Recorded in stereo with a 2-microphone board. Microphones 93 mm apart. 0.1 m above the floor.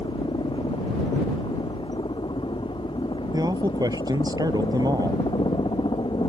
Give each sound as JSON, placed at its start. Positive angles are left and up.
{"t": 0.0, "sound": "a helicopter", "side_deg": 65}
{"t": 3.3, "sound": "a man speaking", "side_deg": -45}